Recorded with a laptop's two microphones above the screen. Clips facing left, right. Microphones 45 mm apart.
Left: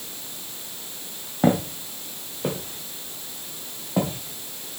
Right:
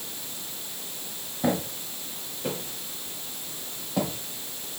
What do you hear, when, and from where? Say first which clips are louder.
1.4 s footsteps: left 6 dB; 55° left (ahead or behind), 1.9 m; by 4.8 s 25° left (ahead or behind), 3 m